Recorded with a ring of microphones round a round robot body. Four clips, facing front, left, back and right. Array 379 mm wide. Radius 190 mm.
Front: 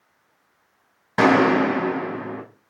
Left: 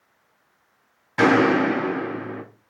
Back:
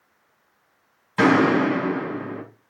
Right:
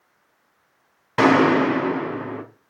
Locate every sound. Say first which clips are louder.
1.2 s a gunshot: right 1 dB, front 1 dB; 35° right, 4.5 m